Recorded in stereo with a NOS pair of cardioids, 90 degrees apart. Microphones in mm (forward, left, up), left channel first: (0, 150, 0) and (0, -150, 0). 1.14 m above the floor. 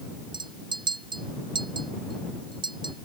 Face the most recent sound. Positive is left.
turn(degrees=-15)